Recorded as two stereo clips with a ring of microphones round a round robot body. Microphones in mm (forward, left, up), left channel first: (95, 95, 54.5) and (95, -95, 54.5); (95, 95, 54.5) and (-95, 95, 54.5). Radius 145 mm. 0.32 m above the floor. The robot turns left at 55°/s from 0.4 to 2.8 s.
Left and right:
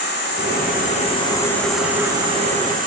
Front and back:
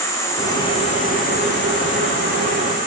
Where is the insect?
75° left, 5.5 m; by 2.9 s 60° right, 5.5 m.